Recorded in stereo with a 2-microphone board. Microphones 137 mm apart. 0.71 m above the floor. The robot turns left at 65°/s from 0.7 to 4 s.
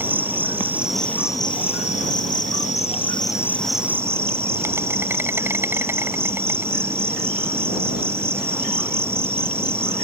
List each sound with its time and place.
0.0 s an insect: 165° right; by 10.0 s 20° right